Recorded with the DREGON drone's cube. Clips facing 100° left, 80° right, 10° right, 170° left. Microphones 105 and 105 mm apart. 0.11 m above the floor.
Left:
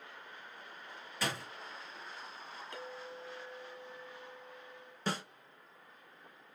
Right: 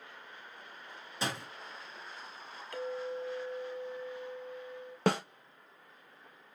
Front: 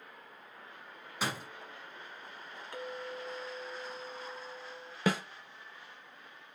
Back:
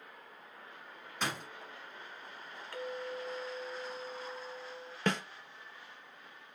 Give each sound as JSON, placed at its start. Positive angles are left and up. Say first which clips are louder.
{"t": 1.2, "sound": "a door slam", "louder": "right 1 dB, front 1 dB", "azimuth_deg": -85, "distance_m": 1.1}
{"t": 2.7, "sound": "a clink", "louder": "right 12 dB, back 2 dB", "azimuth_deg": 45, "distance_m": 1.2}
{"t": 5.1, "sound": "a snare drum", "louder": "right 8 dB, front 2 dB", "azimuth_deg": -95, "distance_m": 0.5}